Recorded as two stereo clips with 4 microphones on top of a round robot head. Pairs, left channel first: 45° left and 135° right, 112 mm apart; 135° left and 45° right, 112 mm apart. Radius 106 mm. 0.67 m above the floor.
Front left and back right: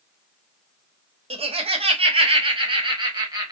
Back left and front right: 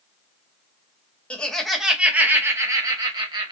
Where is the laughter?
145° right, 1.1 m; by 3.5 s 85° right, 1.4 m.